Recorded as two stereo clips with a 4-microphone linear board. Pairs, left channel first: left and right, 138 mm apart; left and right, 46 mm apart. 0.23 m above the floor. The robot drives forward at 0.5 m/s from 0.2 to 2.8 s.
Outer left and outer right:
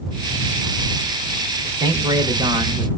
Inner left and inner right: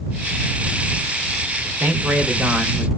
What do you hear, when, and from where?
1.6 s a man speaking: 30° right (ahead or behind), 1.4 m; by 2.9 s 35° right (ahead or behind), 1.2 m